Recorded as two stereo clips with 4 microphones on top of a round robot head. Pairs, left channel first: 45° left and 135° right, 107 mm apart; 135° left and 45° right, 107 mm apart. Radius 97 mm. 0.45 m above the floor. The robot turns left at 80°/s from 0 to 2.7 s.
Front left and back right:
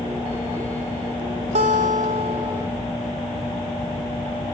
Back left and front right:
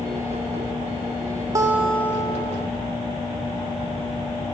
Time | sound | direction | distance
1.6 | a guitar | 110° right | 1.1 m